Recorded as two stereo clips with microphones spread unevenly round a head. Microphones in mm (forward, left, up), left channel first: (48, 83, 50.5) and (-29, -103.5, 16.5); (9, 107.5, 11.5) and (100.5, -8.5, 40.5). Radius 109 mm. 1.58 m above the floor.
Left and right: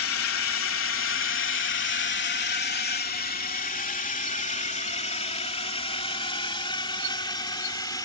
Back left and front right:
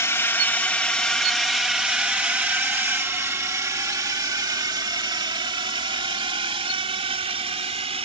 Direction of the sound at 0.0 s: 55° left.